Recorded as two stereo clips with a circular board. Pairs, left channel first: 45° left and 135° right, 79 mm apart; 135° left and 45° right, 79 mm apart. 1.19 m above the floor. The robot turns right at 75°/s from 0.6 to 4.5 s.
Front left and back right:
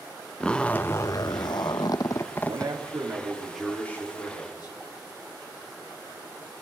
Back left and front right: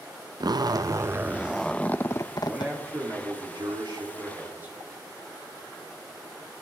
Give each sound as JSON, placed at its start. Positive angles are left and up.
{"t": 0.4, "sound": "a zipper", "azimuth_deg": -30, "distance_m": 0.5}
{"t": 2.5, "sound": "a man speaking", "azimuth_deg": -135, "distance_m": 3.0}